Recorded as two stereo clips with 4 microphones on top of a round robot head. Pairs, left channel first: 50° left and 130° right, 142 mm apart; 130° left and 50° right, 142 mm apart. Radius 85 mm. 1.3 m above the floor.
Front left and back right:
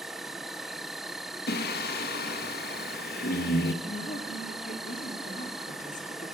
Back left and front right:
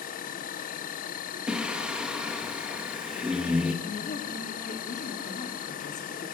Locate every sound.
0.0 s an insect: 140° left, 1.3 m
1.5 s singing: 35° left, 1.7 m
3.8 s a woman speaking: 90° left, 3.5 m